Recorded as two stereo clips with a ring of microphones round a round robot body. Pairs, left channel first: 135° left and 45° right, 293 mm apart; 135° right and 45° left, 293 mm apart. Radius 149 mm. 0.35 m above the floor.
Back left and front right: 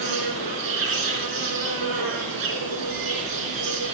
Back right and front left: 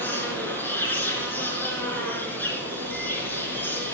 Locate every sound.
0.0 s an insect: 50° right, 3 m